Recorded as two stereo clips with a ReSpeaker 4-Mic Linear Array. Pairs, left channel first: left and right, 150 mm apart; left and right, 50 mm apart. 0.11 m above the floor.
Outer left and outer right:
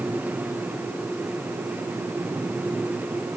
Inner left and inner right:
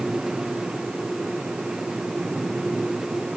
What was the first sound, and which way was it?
Only background noise.